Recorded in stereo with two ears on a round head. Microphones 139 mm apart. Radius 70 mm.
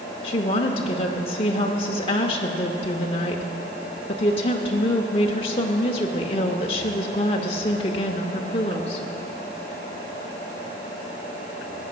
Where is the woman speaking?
40° left (ahead or behind), 0.8 m.